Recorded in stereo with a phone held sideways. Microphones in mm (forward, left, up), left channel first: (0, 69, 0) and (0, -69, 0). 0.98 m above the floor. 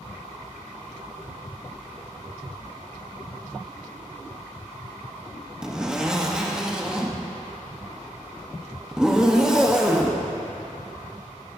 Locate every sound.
5.6 s a zipper: 5° right (ahead or behind), 1.1 m